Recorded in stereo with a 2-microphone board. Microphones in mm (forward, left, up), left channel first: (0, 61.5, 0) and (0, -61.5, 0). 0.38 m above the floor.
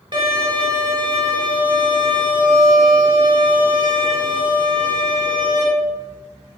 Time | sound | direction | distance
0.1 | a violin | 40° right (ahead or behind) | 3 m